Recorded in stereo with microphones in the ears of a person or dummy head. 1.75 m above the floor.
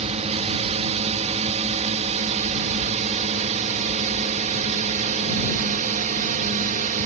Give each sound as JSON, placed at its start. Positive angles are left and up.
{"t": 0.0, "sound": "a drone", "side_deg": -35}